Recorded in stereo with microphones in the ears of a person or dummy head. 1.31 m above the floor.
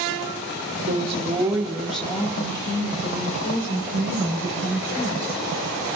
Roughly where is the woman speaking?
Right.